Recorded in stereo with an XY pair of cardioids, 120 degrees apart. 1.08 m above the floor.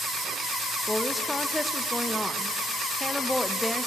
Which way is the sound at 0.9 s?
5° left.